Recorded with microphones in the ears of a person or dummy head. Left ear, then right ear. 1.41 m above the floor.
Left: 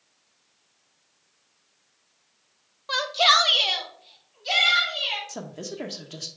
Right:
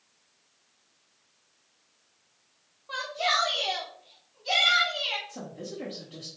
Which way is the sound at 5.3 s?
75° left (ahead or behind).